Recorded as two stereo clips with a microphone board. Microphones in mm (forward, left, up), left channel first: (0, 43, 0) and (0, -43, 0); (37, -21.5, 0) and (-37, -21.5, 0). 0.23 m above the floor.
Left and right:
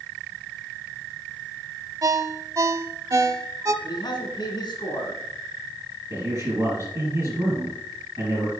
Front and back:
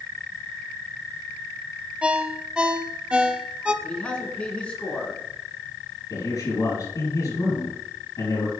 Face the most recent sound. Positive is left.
turn(degrees=-40)